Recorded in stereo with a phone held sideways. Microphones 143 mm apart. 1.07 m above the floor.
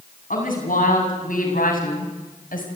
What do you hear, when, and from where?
0.3 s a woman speaking: 70° left (ahead or behind), 8.5 m; by 2.7 s 85° left, 6 m